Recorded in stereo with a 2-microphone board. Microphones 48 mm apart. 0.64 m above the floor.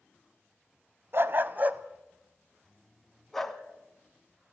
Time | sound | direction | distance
1.1 | a dog barking | 55° right (ahead or behind) | 1.0 m